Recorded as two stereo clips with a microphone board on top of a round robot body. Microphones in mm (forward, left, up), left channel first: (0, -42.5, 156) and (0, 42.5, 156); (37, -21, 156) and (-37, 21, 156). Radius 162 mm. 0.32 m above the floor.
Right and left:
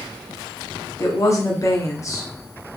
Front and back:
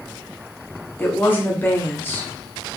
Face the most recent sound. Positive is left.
turn(degrees=-75)